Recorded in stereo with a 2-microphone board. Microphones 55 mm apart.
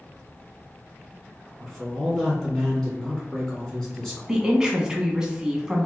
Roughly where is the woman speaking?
Centre.